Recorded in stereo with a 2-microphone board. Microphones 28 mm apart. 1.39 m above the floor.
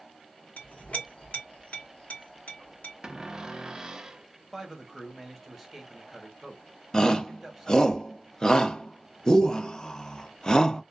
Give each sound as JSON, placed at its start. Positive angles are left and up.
{"t": 0.6, "sound": "a clink", "side_deg": 60, "distance_m": 1.0}
{"t": 3.0, "sound": "a cupboard door", "side_deg": -25, "distance_m": 0.5}
{"t": 4.5, "sound": "a man speaking", "side_deg": -5, "distance_m": 1.2}
{"t": 6.9, "sound": "a shout", "side_deg": 20, "distance_m": 0.6}